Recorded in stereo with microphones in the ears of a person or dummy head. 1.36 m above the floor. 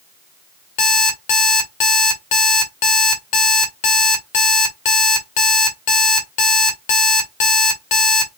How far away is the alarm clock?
About 1.3 m.